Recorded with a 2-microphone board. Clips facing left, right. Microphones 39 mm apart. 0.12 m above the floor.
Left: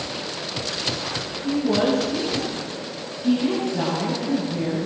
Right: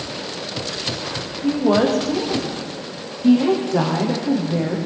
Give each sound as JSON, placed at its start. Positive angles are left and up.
{"t": 1.4, "sound": "a woman speaking", "side_deg": -75, "distance_m": 9.5}